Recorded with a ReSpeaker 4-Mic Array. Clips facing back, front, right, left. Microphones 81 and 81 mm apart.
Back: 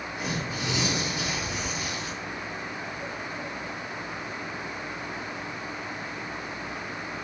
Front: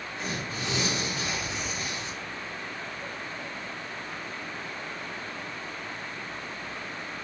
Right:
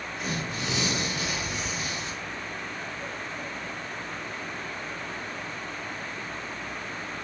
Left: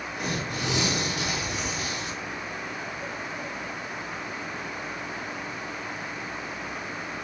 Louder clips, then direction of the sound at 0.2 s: Back 2 dB, left 2 dB; 105° left.